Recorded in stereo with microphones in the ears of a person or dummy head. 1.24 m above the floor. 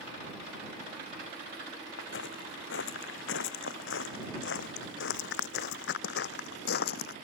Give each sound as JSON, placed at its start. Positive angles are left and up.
{"t": 2.0, "sound": "footsteps", "side_deg": 75}